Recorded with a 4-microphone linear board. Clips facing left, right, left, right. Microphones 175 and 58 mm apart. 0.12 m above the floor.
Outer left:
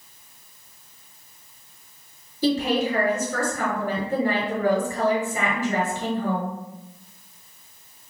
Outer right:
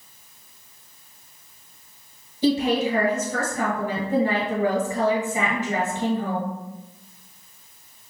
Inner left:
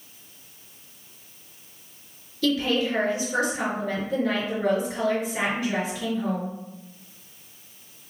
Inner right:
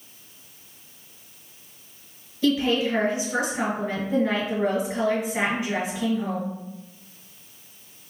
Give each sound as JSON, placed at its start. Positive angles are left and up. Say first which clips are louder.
{"t": 2.4, "sound": "a woman speaking", "louder": "outer right 1 dB, inner right 2 dB", "side_deg": -20, "distance_m": 1.8}